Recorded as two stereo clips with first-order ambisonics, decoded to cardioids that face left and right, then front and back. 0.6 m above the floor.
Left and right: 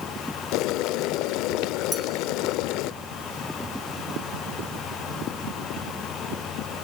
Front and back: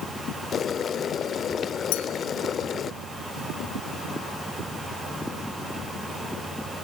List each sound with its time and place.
0.5 s boiling: 60° left, 0.9 m
1.9 s a clink: 5° left, 2.5 m